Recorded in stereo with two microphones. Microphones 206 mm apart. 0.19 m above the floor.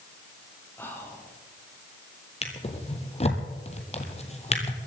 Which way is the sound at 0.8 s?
10° left (ahead or behind).